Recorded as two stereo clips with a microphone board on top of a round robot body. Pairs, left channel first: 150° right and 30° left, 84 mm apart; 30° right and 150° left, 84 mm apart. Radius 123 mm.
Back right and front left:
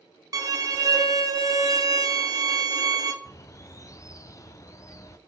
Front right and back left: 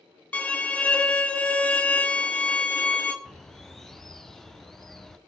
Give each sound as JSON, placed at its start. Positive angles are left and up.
{"t": 0.3, "sound": "a violin", "azimuth_deg": 35, "distance_m": 1.4}
{"t": 3.2, "sound": "a bird", "azimuth_deg": -115, "distance_m": 0.7}